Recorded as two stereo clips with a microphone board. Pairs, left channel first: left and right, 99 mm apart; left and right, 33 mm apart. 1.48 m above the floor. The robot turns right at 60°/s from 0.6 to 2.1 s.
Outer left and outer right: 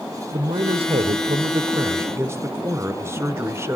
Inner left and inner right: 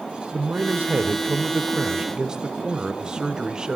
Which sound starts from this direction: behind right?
A man speaking, at 0.3 s.